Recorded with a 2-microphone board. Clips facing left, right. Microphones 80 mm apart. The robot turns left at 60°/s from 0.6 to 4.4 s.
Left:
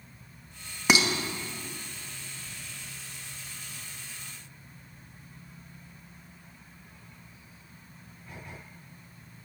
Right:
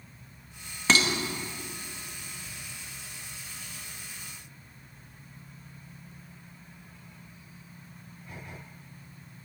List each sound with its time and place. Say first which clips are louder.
0.9 s dishes clattering: left 1 dB; 15° left (ahead or behind), 1.0 m; by 1.1 s 25° left (ahead or behind), 1.0 m